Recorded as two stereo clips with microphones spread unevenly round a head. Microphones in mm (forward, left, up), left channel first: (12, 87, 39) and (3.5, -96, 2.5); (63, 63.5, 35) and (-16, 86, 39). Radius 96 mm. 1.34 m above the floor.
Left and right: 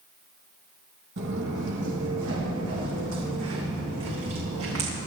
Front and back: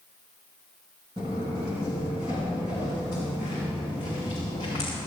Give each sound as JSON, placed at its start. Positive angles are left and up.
{"t": 1.2, "sound": "footsteps", "azimuth_deg": -130, "distance_m": 3.0}